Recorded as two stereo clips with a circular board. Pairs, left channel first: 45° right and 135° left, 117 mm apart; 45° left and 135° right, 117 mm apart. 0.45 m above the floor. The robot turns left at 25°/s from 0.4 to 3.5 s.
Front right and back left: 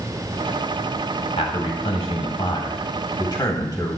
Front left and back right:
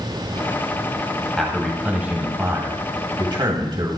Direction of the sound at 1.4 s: 40° right.